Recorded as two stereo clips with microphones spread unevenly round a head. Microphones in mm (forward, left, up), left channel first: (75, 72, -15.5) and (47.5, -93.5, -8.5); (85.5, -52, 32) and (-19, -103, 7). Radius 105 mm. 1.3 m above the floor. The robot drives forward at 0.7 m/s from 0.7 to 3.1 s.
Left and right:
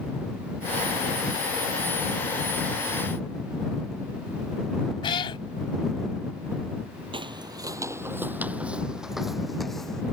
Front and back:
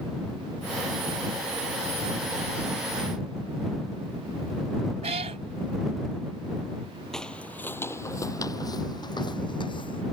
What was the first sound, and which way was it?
A cat meowing, 145° left.